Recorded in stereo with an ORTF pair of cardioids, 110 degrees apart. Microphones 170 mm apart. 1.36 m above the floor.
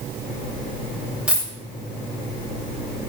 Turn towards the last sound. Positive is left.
turn(degrees=-5)